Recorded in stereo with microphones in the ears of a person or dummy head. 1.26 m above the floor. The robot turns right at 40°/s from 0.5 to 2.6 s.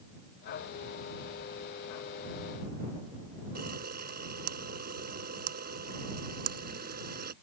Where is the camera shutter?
50° right (ahead or behind).